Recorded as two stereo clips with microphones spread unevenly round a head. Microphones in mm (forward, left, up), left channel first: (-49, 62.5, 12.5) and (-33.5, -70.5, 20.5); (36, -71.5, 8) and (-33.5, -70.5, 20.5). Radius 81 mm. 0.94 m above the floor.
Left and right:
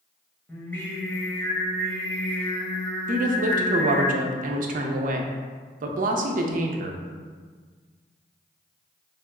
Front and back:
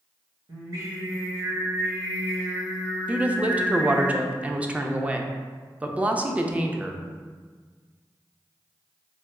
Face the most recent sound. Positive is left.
turn(degrees=-105)